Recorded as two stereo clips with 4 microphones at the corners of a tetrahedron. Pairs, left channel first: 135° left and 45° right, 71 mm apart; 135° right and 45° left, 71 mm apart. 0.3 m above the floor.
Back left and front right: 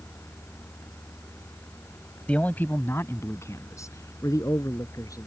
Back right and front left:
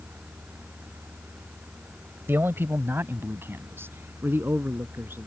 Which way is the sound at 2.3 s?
75° left.